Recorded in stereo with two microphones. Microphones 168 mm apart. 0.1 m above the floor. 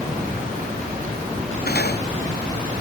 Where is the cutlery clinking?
70° left (ahead or behind).